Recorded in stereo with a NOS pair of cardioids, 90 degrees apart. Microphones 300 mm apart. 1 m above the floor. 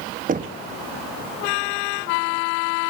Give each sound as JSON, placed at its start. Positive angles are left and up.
{"t": 0.3, "sound": "knocking", "azimuth_deg": -25, "distance_m": 1.1}